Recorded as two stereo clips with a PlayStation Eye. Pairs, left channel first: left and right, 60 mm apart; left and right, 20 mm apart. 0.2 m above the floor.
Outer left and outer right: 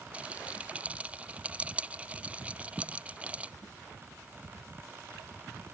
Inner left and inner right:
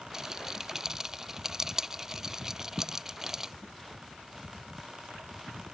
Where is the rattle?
20° right (ahead or behind).